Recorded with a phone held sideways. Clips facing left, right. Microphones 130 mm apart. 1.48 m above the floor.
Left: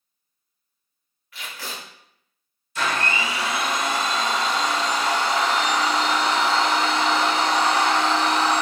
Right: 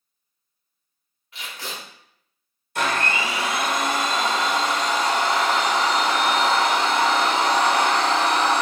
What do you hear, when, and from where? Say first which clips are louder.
1.3 s tape being pulled: even; 25° right (ahead or behind), 1.2 m
2.8 s a blender: right 1 dB; 55° right (ahead or behind), 0.9 m